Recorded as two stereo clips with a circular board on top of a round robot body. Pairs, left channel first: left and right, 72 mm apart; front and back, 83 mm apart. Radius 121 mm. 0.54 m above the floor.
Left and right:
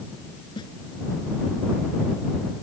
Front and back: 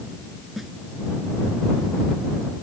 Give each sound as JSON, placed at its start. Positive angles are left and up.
{"t": 0.6, "sound": "a snare drum", "azimuth_deg": 95}